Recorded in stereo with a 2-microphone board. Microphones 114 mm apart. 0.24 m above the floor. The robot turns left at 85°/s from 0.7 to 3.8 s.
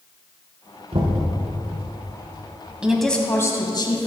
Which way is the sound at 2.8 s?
165° right.